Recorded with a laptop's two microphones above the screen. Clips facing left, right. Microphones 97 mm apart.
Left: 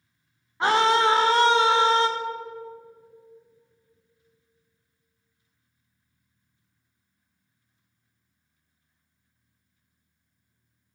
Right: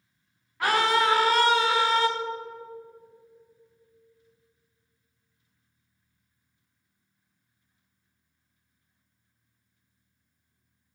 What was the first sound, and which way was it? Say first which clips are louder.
A scream: left 3 dB; 25° left (ahead or behind).